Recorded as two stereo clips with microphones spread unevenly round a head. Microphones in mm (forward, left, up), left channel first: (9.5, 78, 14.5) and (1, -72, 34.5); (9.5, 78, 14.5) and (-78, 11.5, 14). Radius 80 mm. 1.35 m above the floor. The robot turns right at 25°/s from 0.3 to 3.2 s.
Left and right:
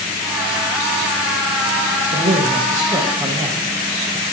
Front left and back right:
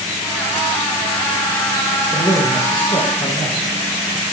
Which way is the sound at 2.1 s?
45° right.